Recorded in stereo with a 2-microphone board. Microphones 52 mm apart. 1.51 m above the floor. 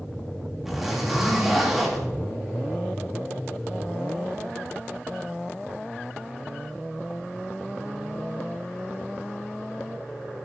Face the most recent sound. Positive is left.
turn(degrees=-5)  # may be behind; listen again after turning